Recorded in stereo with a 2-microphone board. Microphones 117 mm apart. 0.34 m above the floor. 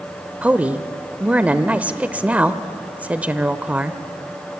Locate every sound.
0.4 s a woman speaking: 15° right (ahead or behind), 0.8 m